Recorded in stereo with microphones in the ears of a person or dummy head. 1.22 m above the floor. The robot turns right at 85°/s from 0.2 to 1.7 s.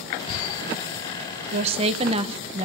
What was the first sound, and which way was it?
A woman speaking, 50° right (ahead or behind).